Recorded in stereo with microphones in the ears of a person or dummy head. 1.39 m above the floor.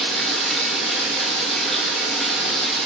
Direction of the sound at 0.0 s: Centre (ahead or behind).